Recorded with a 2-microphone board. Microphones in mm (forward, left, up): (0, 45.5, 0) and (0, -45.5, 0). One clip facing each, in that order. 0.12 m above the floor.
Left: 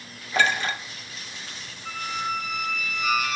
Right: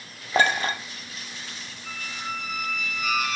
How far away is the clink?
About 1.5 m.